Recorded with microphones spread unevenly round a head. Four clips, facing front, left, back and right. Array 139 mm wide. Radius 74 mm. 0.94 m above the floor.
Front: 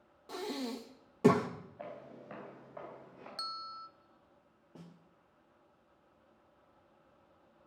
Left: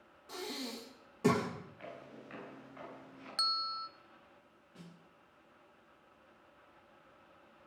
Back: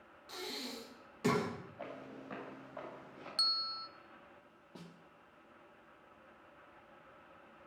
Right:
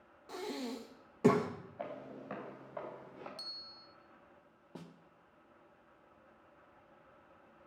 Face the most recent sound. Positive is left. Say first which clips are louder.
# right 5 dB, even
turn(degrees=-90)